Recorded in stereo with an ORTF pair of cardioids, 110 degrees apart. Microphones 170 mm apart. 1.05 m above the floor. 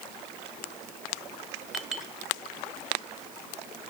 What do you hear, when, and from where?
1.7 s a clink: straight ahead, 2 m